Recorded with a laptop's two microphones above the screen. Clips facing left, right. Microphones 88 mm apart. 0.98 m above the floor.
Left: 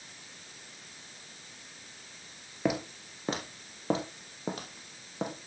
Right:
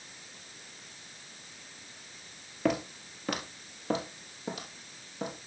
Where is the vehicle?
No vehicle in this recording.